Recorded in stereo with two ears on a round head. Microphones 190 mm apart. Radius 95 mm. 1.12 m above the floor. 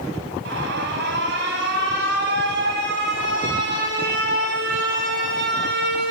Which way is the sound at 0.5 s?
50° right (ahead or behind).